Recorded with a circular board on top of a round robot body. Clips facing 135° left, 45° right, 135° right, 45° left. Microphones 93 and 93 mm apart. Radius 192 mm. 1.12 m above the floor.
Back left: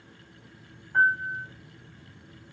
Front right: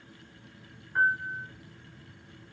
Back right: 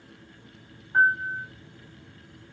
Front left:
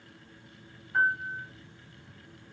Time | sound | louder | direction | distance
0.9 | a piano | back left 3 dB, back right 5 dB | 160° left | 1.4 m